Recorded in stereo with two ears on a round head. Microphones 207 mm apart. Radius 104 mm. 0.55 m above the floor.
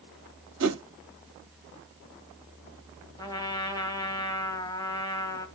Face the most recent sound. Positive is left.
turn(degrees=20)  # may be behind; listen again after turning